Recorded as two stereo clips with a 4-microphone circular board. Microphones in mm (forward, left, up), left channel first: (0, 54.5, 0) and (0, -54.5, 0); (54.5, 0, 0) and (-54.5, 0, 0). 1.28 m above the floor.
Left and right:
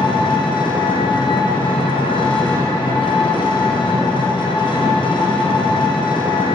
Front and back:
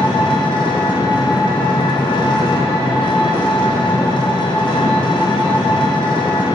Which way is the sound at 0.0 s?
45° left.